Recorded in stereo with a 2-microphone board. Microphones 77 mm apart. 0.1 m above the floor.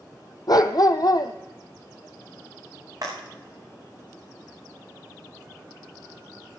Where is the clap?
50° right (ahead or behind), 7 m.